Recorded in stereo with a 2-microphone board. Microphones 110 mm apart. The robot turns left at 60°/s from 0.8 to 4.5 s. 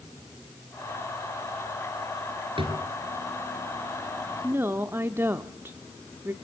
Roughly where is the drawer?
Right.